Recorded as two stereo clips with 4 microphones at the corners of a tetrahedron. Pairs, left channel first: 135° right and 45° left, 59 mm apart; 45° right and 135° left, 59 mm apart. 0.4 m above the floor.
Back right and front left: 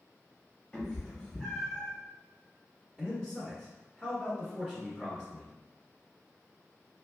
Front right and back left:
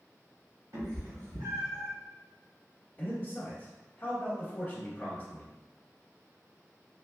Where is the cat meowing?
145° left, 1.1 m; by 1.9 s 135° left, 2 m.